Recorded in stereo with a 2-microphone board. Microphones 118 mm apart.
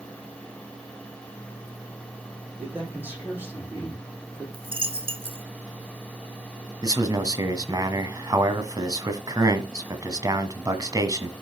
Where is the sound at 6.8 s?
30° right (ahead or behind), 1.6 m.